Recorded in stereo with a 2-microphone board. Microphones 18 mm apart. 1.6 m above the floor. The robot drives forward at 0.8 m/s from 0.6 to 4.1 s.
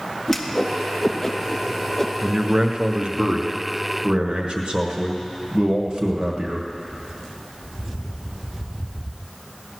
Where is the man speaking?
55° right (ahead or behind), 1.2 m; by 6.7 s 50° right (ahead or behind), 1.3 m.